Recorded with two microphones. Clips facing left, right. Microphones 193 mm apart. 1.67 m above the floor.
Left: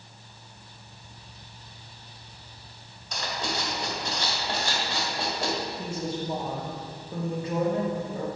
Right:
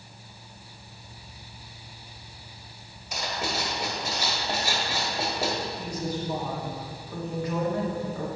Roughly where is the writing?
Centre.